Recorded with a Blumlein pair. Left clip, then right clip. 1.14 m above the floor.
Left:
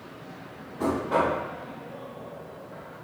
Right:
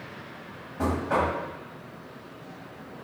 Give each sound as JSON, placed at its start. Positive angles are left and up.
{"t": 0.8, "sound": "knocking", "azimuth_deg": -30, "distance_m": 1.3}